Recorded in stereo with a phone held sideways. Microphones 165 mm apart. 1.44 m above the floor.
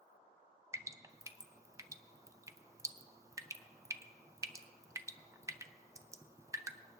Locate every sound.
0.7 s dripping: 20° right (ahead or behind), 0.5 m